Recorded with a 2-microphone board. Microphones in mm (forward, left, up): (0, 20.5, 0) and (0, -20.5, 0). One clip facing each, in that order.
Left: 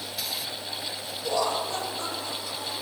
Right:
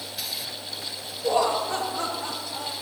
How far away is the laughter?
About 1.8 m.